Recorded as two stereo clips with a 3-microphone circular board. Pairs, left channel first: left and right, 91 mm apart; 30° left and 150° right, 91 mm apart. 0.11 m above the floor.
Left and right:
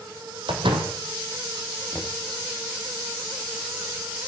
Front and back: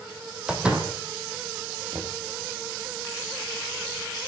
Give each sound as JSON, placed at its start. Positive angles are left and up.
{"t": 0.5, "sound": "a door slam", "azimuth_deg": -70, "distance_m": 4.0}
{"t": 1.9, "sound": "knocking", "azimuth_deg": 180, "distance_m": 1.6}